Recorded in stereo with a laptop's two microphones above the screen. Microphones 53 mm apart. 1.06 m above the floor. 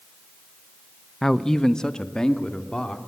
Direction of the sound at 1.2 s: 5° left (ahead or behind).